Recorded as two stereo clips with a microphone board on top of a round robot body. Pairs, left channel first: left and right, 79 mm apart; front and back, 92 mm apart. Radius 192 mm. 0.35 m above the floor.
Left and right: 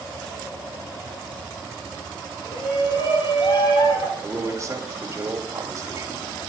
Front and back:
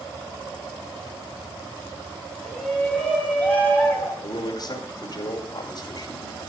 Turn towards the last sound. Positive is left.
turn(degrees=-35)